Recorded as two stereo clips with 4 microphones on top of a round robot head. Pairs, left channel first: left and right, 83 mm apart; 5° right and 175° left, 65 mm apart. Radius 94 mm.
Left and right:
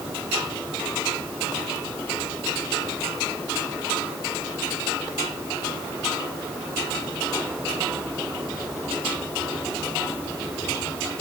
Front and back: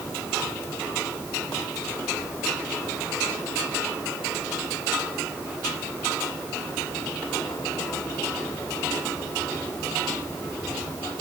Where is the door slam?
No door slam in this recording.